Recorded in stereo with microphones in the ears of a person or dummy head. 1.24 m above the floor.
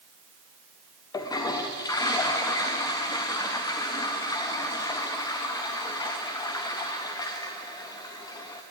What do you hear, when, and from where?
1.1 s a toilet flushing: 15° left (ahead or behind), 0.6 m